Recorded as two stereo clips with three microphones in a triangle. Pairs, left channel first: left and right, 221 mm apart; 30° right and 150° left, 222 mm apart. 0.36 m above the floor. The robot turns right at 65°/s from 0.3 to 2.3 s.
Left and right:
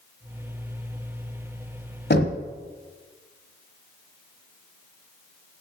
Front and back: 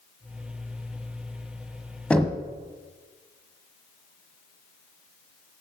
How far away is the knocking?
About 1.3 m.